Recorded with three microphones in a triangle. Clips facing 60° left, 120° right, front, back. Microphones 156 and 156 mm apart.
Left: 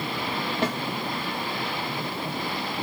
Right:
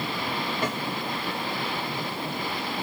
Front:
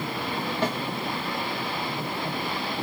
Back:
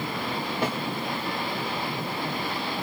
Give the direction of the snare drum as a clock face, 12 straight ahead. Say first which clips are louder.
Left 4 dB, front 1 dB; 8 o'clock.